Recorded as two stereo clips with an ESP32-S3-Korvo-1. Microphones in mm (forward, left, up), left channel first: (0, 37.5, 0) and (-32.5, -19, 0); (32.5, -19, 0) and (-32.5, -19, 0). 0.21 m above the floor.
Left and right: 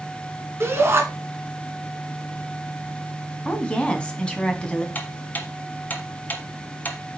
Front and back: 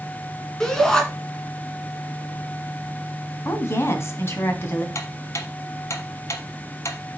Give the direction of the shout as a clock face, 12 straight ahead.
3 o'clock.